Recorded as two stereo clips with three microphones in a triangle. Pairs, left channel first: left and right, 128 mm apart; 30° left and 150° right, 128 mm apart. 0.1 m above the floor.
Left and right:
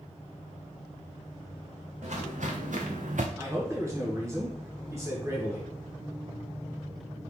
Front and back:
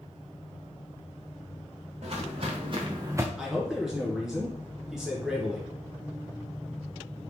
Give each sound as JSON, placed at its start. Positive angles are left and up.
{"t": 2.0, "sound": "footsteps", "azimuth_deg": -110, "distance_m": 1.4}
{"t": 3.4, "sound": "a man speaking", "azimuth_deg": -70, "distance_m": 1.2}